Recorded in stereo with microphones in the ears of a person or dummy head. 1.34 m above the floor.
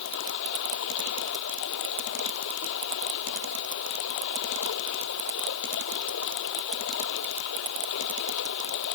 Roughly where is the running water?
Left.